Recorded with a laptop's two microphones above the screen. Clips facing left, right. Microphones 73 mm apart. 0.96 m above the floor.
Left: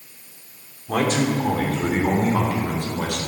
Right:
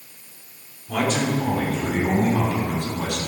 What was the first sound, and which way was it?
A man speaking, 45° left (ahead or behind).